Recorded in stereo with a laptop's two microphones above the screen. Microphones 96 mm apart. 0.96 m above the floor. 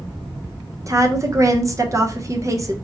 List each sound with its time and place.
0.9 s a woman speaking: 35° right (ahead or behind), 0.7 m